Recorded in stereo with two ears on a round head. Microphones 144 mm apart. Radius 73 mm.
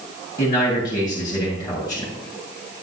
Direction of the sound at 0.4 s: 25° left (ahead or behind).